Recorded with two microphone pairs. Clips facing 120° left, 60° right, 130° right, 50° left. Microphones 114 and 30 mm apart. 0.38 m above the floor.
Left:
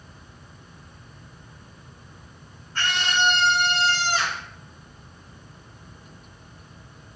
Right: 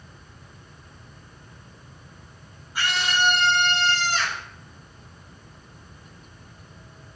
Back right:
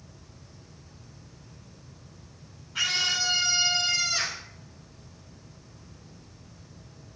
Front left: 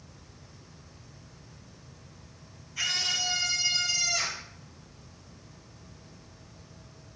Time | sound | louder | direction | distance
2.8 | a scream | even, back right 3 dB | 140° right | 4 m